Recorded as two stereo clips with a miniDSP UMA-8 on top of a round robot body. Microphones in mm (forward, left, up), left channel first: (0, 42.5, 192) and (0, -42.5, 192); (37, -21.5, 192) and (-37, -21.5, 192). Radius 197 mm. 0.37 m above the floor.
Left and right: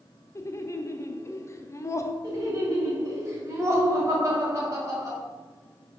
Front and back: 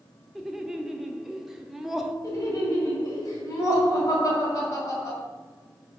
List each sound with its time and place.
0.3 s laughter: 100° left, 1.0 m
2.2 s laughter: 40° right, 2.5 m